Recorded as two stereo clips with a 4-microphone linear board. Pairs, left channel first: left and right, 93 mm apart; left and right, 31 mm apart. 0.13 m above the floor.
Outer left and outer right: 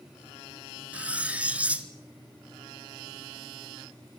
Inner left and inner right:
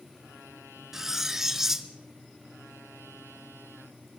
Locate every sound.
0.9 s cutlery clinking: 15° right (ahead or behind), 1.1 m